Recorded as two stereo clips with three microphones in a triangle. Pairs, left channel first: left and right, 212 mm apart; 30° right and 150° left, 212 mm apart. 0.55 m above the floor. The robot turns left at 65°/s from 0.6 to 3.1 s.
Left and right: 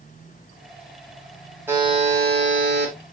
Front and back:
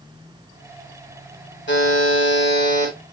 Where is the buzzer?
10° right, 3 m; by 2.9 s 95° right, 3 m.